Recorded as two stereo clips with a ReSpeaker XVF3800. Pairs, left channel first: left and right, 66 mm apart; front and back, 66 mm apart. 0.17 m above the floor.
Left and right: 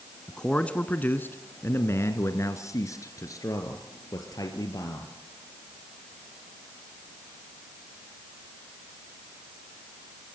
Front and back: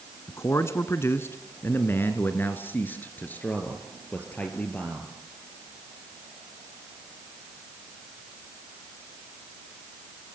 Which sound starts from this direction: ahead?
A man speaking, at 0.3 s.